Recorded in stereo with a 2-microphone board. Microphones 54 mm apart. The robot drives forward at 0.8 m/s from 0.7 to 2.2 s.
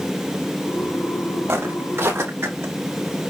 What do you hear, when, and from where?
1.5 s footsteps: 50° right (ahead or behind), 4.5 m; by 2.7 s 55° right (ahead or behind), 5 m